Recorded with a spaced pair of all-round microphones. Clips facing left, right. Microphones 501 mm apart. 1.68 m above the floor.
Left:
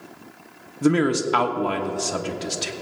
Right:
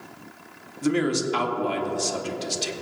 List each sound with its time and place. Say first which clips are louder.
0.8 s a man speaking: left 4 dB; 70° left (ahead or behind), 1.1 m